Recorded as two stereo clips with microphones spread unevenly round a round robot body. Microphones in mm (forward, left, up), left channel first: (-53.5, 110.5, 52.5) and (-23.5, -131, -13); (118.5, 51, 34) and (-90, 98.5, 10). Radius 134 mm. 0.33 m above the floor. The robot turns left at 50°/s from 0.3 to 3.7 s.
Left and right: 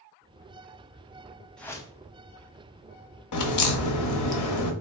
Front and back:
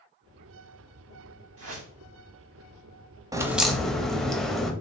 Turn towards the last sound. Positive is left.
turn(degrees=80)